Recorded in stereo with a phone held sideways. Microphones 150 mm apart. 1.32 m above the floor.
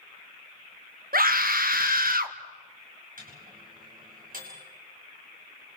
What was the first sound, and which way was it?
A scream, 75° right (ahead or behind).